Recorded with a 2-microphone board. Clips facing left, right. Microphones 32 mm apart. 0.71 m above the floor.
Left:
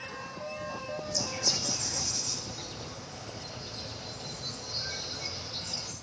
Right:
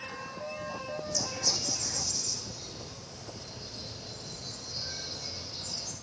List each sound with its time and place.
1.0 s a bird: 40° left (ahead or behind), 3 m